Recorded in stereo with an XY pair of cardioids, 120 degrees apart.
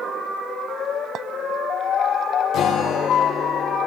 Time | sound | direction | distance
1.1 | a clink | 60° right | 0.5 m
2.5 | a guitar | 60° left | 3.5 m